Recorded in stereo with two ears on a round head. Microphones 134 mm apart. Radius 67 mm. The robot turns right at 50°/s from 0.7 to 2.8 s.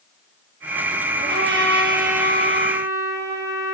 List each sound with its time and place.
1.2 s a trumpet: 100° right, 7 m; by 3.8 s 20° right, 7 m